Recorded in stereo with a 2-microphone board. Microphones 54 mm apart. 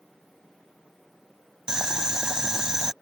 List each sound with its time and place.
1.7 s boiling: 15° right (ahead or behind)